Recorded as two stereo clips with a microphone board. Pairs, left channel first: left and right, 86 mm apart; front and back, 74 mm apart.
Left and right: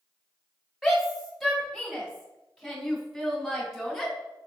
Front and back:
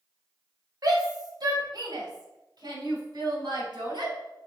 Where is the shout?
175° right, 2.5 m.